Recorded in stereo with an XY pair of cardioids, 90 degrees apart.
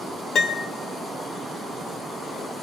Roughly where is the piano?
Ahead left.